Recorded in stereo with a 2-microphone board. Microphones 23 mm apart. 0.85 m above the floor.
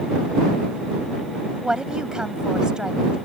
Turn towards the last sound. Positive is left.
turn(degrees=-45)  # may be behind; listen again after turning